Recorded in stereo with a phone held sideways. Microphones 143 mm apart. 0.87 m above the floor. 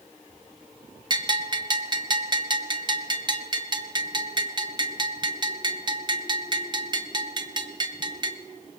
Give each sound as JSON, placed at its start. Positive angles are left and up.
{"t": 1.1, "sound": "a bell", "side_deg": -30, "distance_m": 0.9}